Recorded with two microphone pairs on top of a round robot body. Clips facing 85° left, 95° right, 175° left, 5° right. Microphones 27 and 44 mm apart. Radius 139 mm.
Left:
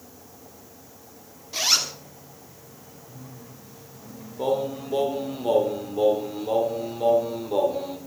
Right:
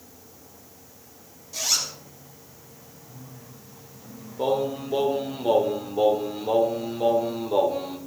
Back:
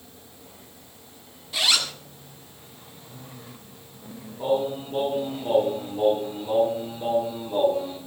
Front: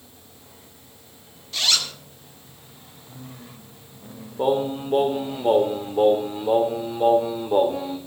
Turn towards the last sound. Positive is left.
turn(degrees=-15)